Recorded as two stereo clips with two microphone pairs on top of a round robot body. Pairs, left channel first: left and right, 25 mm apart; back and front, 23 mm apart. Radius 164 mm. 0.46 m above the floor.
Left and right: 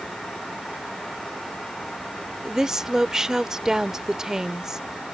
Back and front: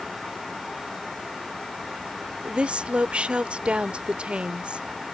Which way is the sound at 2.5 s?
35° right.